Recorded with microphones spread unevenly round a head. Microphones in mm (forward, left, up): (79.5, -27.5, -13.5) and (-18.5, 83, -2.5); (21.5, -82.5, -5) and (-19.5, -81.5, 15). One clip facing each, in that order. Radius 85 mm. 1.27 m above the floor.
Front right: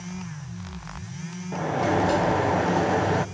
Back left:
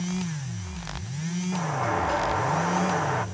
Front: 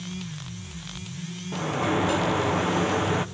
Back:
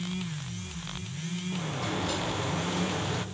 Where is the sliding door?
5° right, 0.8 m.